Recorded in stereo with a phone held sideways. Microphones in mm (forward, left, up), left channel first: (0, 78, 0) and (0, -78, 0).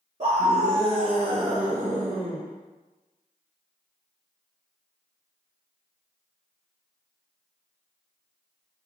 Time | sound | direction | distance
0.2 | a scream | 45° right (ahead or behind) | 0.6 m